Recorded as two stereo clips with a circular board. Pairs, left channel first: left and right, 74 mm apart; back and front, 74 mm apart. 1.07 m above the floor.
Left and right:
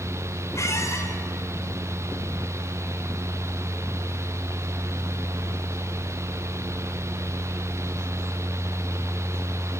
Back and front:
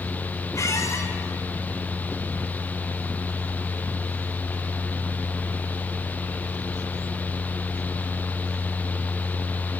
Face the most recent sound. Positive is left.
turn(degrees=135)